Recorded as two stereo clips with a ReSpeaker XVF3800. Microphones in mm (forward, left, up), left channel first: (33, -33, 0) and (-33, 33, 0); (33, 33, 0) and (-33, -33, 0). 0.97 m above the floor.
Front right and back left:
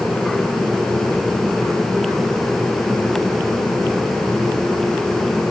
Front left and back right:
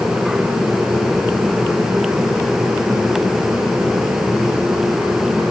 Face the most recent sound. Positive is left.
No sound to turn to.